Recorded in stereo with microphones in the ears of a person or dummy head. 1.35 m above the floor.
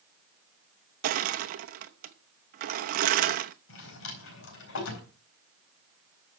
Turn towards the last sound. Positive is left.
turn(degrees=80)